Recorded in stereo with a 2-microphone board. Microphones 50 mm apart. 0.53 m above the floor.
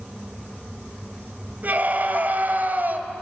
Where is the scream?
40° right (ahead or behind), 2.5 m.